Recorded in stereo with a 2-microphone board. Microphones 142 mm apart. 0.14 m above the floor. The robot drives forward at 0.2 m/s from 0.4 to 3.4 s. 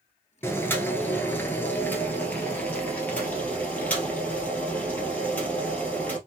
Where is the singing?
I don't hear singing.